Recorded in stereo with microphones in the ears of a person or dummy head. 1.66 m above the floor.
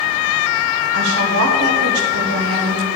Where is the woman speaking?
75° right (ahead or behind), 1.3 m.